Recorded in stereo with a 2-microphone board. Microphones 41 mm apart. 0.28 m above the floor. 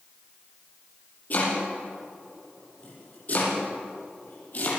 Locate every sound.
1.3 s chopping: 40° left (ahead or behind), 7.5 m